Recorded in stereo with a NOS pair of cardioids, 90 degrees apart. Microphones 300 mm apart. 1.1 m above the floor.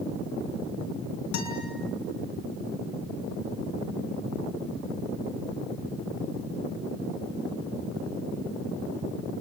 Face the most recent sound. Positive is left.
turn(degrees=70)